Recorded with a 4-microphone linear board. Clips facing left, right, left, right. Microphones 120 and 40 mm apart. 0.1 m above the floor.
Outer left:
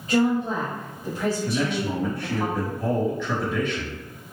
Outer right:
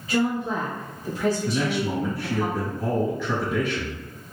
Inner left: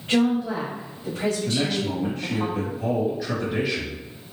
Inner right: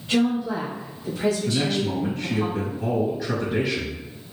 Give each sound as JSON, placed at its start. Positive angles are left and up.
{"t": 0.1, "sound": "a woman speaking", "side_deg": 45, "distance_m": 1.8}
{"t": 1.4, "sound": "a man speaking", "side_deg": -5, "distance_m": 1.9}